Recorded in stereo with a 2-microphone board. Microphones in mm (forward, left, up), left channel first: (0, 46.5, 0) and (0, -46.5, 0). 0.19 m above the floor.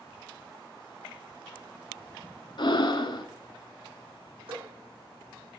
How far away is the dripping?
About 3 m.